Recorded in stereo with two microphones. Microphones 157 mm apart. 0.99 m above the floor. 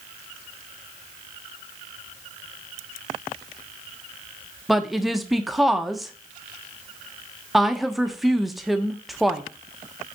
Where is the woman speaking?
Centre (ahead or behind), 1.0 m.